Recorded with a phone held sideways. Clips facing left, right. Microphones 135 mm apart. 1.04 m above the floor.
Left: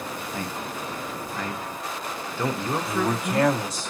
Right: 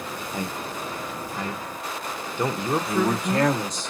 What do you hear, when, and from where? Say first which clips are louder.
0.3 s a man speaking: right 3 dB; 15° right (ahead or behind), 0.7 m
2.9 s a man speaking: right 2 dB; 5° left (ahead or behind), 1.6 m